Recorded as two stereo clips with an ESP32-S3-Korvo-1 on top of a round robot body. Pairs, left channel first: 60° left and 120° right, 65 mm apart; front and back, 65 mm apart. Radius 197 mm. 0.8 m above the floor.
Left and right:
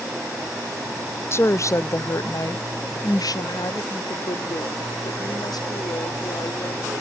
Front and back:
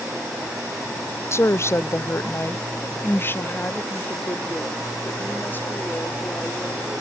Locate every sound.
1.3 s a woman speaking: 30° left; by 7.0 s 60° left